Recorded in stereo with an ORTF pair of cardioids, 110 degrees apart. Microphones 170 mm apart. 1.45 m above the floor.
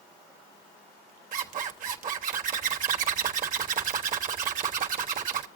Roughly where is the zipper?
Ahead right.